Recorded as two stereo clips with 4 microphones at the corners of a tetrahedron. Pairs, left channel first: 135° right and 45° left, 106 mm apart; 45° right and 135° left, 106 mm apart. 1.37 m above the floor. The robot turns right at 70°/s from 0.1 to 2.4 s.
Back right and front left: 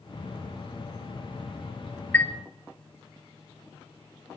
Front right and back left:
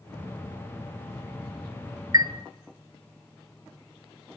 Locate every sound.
2.1 s a chime: 165° left, 0.6 m; by 2.3 s 175° left, 0.6 m